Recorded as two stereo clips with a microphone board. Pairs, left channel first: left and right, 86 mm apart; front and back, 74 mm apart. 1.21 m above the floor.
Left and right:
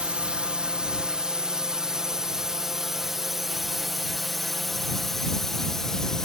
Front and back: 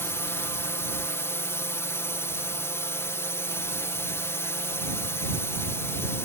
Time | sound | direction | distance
0.0 | a drone | 20° right | ?